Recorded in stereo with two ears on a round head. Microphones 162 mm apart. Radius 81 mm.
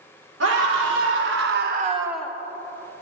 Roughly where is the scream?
Right.